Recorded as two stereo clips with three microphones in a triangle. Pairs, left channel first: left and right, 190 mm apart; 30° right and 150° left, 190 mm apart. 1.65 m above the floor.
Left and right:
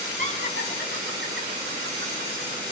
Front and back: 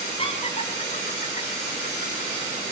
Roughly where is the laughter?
Right.